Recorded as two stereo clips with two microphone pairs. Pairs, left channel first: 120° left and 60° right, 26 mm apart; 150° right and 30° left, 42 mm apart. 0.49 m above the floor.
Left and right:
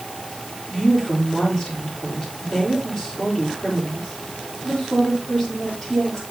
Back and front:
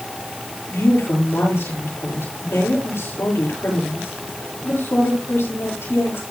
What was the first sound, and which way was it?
A woman speaking, straight behind.